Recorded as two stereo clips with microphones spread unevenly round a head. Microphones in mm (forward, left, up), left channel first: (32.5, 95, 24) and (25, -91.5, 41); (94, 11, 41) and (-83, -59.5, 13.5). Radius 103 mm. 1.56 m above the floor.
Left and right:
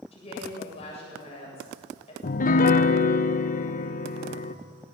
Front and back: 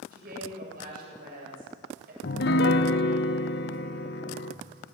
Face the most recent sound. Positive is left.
turn(degrees=45)